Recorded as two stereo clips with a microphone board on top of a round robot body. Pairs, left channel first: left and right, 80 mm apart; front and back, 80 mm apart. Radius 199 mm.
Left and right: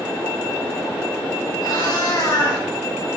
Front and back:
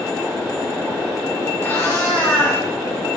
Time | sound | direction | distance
1.6 | a cat meowing | 60° left | 4.5 m